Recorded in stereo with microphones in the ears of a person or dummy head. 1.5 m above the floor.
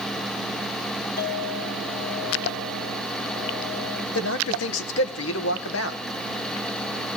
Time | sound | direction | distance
1.2 | a clink | 60° left (ahead or behind) | 2 m
4.2 | a man speaking | 75° left (ahead or behind) | 1.6 m